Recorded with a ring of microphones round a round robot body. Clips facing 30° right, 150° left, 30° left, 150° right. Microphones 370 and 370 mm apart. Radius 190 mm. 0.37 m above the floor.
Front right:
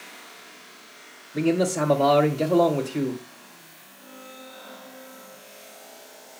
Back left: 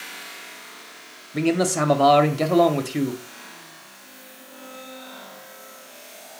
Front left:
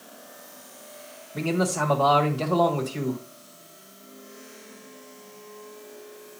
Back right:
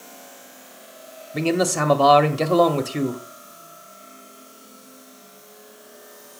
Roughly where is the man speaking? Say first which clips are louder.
Back left 1 dB, back right 4 dB; behind right.